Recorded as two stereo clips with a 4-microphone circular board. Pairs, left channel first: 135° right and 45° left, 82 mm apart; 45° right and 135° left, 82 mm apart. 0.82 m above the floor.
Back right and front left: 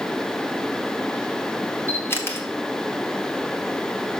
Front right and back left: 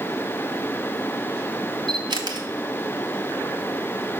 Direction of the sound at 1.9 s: 160° left.